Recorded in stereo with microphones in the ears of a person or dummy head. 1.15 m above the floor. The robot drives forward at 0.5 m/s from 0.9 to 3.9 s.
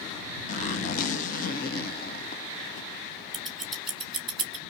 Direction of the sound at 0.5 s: 40° left (ahead or behind).